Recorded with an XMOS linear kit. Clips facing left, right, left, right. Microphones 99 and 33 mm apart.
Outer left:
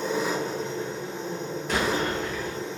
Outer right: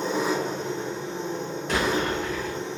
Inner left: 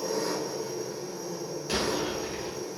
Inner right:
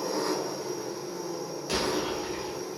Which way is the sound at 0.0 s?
45° right (ahead or behind).